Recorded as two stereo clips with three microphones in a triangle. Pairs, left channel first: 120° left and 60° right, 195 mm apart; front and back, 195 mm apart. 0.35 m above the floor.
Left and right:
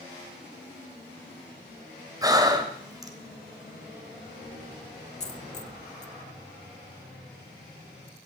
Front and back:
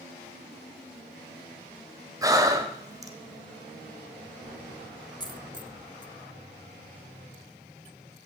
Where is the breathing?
120° right, 1.9 m.